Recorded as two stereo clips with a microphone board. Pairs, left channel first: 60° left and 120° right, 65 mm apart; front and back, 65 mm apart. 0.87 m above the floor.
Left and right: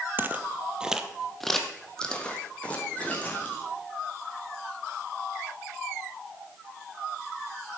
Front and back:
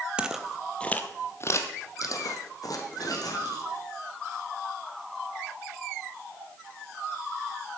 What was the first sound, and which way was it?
Footsteps, 125° right.